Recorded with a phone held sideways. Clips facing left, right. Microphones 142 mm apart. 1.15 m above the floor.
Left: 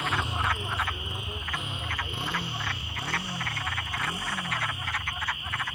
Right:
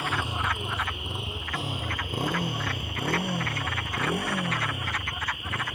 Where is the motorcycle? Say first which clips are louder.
Even; 10° right (ahead or behind); by 5.8 s 70° right (ahead or behind).